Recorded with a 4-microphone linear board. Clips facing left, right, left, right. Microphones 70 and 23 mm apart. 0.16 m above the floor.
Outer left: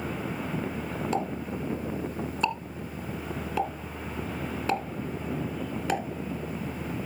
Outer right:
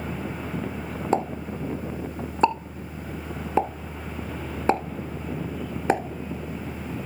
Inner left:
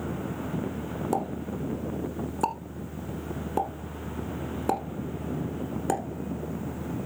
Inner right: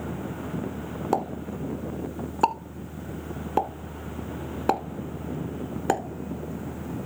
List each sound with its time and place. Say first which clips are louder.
1.1 s a pop: outer right 7 dB, inner right 4 dB; 30° right (ahead or behind), 1.1 m